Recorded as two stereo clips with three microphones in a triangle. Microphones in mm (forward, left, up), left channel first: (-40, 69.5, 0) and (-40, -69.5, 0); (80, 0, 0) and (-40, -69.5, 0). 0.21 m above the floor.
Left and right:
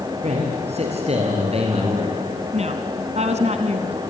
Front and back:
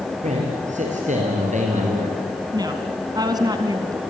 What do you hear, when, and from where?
0.2 s a man speaking: 125° right, 5.5 m; by 2.2 s 130° right, 4 m
2.5 s a woman speaking: 100° right, 2 m